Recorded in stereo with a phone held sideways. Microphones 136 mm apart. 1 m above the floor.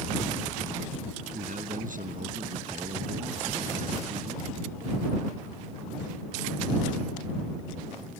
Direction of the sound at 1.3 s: 70° right (ahead or behind).